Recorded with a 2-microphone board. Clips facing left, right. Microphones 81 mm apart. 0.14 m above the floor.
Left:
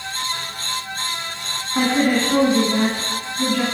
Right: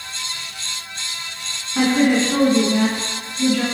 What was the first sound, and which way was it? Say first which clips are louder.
A woman speaking: right 2 dB; 20° left (ahead or behind).